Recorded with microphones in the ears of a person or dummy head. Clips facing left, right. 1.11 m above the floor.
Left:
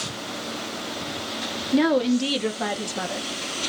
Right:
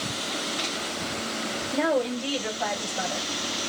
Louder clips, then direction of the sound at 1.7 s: Left 6 dB; 50° left (ahead or behind).